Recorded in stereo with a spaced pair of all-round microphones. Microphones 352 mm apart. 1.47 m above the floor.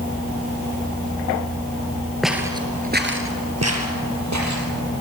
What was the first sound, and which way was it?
Footsteps, centre (ahead or behind).